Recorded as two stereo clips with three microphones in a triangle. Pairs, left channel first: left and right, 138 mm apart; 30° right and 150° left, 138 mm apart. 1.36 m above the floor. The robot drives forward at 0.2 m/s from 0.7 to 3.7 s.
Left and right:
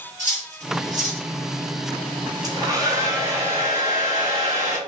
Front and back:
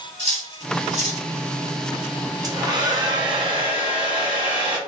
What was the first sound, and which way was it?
Cutlery clinking, 65° right.